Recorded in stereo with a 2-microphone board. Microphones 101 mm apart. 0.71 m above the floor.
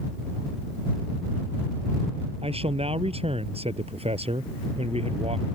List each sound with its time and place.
2.4 s a man speaking: 75° right (ahead or behind); by 5.5 s 80° right